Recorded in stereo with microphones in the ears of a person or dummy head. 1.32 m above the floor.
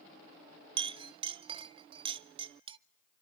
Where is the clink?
20° right (ahead or behind), 0.6 m.